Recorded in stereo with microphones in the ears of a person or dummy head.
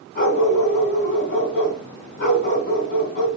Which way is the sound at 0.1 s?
55° left (ahead or behind).